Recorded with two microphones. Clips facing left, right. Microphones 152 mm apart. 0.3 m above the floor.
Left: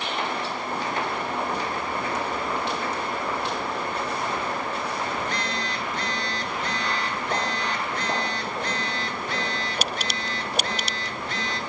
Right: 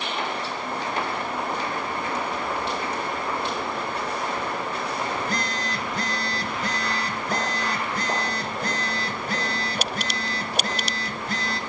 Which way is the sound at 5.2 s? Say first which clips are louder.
Right 1 dB; 35° right (ahead or behind).